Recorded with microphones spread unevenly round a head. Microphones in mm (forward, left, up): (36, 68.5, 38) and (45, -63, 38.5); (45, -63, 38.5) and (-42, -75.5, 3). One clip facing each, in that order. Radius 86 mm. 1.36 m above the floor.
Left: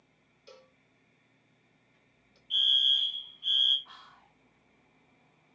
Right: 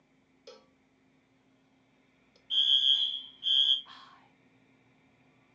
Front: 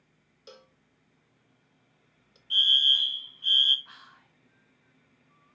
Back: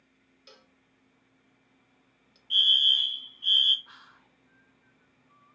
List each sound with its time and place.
0.5 s a cowbell: 55° right, 0.6 m
2.5 s a fire alarm: 80° right, 1.3 m
3.9 s whispering: 5° left, 0.8 m